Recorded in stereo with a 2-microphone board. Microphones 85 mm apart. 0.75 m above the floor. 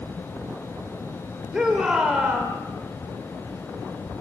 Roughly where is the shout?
Centre.